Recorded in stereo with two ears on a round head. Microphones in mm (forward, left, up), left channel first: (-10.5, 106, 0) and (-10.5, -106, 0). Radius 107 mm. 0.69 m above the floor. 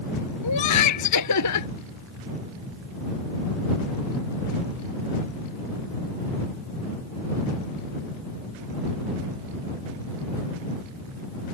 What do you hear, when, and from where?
0.4 s laughter: 85° left